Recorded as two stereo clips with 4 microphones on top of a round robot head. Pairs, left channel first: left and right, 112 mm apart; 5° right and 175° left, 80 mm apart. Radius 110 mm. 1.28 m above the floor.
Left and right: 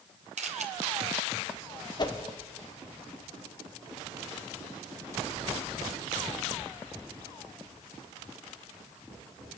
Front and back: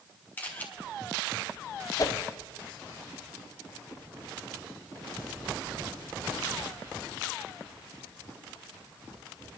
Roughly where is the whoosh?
Ahead left.